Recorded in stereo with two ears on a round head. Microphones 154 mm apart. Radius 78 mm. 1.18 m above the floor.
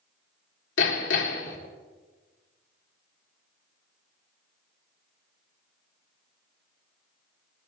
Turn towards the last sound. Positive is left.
turn(degrees=75)  # may be behind; listen again after turning